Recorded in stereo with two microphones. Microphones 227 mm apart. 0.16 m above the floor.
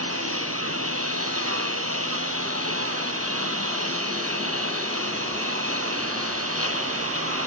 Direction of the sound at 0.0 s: 80° right.